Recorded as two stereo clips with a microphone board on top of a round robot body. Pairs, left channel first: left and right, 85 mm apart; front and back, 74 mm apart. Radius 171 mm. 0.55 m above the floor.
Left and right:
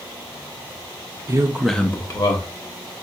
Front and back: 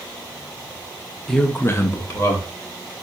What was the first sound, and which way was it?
A man speaking, 80° right.